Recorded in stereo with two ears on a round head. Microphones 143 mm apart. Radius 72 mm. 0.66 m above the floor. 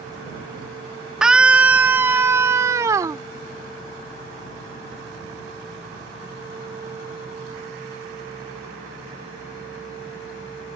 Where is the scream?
5° right (ahead or behind); by 3.2 s 25° right (ahead or behind).